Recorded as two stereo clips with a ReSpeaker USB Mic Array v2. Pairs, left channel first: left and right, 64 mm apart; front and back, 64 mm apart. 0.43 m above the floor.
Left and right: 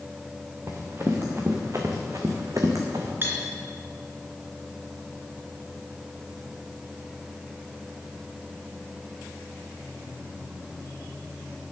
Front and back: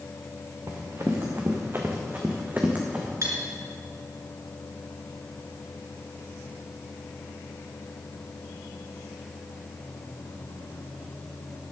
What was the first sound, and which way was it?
Running footsteps, 140° right.